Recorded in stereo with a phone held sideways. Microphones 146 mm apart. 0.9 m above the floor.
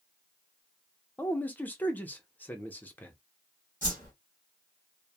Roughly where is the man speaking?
Centre.